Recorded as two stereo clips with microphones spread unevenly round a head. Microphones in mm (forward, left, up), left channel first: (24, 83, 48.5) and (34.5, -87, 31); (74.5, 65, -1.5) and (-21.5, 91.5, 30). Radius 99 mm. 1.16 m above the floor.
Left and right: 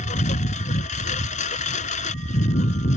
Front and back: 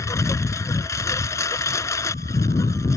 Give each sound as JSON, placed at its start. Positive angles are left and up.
{"t": 0.0, "sound": "a lawn mower", "azimuth_deg": 50}